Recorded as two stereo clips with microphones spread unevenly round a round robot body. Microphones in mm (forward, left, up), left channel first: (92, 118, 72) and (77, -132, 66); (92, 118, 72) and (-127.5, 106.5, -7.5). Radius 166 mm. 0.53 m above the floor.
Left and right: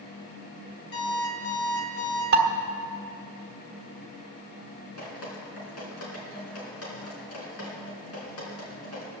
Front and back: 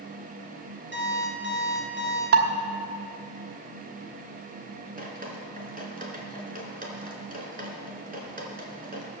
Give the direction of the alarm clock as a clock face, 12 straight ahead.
7 o'clock.